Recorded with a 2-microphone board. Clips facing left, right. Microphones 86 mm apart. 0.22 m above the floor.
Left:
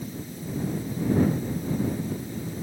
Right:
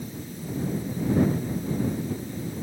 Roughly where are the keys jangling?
No keys jangling in this recording.